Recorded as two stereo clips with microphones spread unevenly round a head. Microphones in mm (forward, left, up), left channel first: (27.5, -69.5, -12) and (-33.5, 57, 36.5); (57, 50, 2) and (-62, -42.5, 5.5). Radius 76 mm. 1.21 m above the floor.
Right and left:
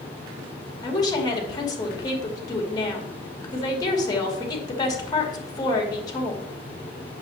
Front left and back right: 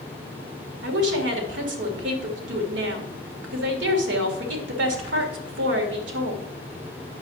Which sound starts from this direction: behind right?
A woman speaking, at 0.8 s.